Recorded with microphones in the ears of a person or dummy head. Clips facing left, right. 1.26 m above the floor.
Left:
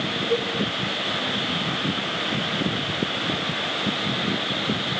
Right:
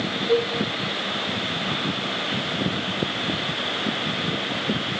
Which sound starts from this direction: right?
A cowbell, at 0.3 s.